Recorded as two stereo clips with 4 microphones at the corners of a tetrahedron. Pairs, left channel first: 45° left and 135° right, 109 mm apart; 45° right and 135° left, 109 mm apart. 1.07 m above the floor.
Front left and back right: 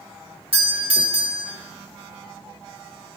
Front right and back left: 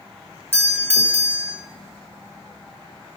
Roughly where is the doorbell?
Behind.